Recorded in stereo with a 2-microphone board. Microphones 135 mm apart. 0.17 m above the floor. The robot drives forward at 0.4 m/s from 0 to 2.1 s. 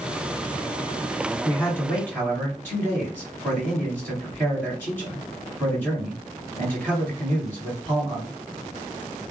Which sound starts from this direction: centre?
A man speaking, at 1.4 s.